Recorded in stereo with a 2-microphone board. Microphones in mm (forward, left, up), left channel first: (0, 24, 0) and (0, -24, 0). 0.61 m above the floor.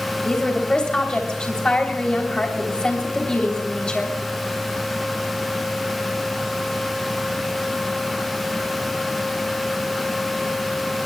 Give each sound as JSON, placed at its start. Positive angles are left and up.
{"t": 0.2, "sound": "a woman speaking", "side_deg": 20, "distance_m": 3.0}